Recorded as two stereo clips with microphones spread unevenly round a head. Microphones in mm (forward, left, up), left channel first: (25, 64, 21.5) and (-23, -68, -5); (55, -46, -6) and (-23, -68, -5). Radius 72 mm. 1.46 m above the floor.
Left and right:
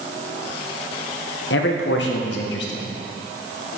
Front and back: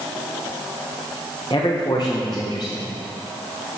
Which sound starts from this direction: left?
A man speaking, at 1.5 s.